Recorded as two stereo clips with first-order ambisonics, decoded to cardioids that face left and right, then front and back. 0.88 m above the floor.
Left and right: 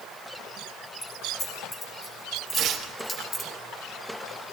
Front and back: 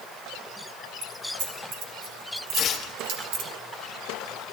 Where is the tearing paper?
50° right, 1.1 m.